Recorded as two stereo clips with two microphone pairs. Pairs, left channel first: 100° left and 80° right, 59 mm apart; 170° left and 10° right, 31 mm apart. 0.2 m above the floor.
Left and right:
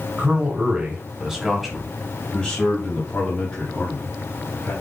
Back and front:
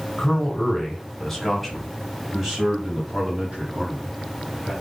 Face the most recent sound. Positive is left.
turn(degrees=55)